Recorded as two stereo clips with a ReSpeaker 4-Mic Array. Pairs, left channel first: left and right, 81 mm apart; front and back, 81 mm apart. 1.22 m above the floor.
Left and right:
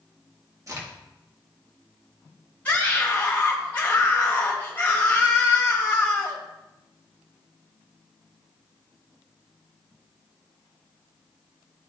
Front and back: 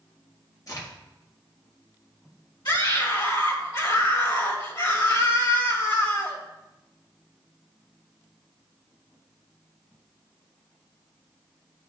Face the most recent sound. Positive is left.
turn(degrees=20)